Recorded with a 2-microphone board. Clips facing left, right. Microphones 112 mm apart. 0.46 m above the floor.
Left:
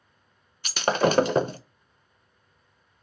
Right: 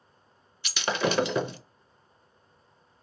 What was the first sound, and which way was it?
Breaking glass, 45° left (ahead or behind).